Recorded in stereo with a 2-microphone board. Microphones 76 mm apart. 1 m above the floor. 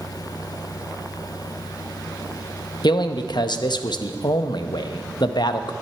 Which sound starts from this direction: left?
A man speaking, at 2.8 s.